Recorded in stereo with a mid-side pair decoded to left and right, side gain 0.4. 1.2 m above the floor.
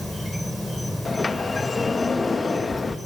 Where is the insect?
5° left, 2.5 m.